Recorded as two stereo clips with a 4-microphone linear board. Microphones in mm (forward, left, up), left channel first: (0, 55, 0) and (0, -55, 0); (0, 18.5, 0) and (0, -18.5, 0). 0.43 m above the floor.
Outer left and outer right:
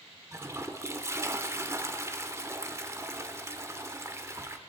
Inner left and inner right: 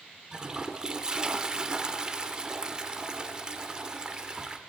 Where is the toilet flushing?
25° right (ahead or behind), 0.8 m.